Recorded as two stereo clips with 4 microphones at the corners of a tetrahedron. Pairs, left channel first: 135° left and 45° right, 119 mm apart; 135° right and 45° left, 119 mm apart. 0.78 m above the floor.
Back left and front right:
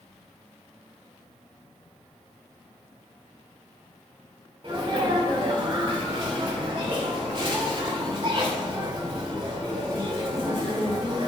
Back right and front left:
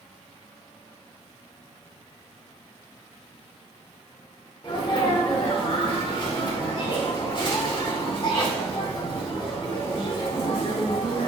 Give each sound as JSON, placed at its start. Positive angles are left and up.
{"t": 4.6, "sound": "a sneeze", "azimuth_deg": -90, "distance_m": 2.0}